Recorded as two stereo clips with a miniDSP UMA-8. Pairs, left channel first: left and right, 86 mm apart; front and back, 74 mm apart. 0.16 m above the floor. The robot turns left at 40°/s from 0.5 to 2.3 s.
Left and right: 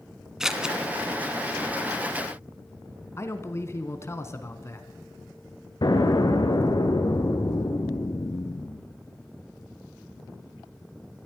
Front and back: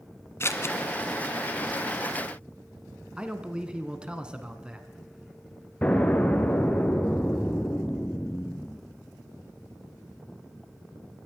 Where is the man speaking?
115° left, 1.3 m.